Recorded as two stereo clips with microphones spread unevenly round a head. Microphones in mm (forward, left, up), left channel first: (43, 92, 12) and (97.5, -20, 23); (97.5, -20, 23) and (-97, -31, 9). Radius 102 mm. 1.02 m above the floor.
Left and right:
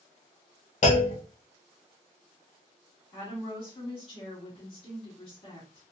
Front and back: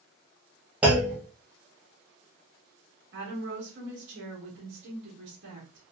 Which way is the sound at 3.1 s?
165° left.